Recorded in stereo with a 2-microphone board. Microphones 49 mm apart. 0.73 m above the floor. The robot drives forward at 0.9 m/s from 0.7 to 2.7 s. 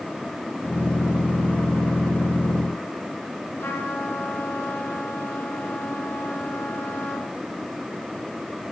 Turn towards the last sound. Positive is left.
turn(degrees=50)  # may be behind; listen again after turning